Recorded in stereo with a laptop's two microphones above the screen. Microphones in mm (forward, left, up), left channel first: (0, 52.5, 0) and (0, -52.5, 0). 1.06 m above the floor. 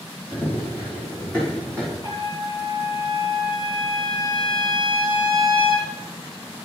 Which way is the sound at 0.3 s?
20° left (ahead or behind).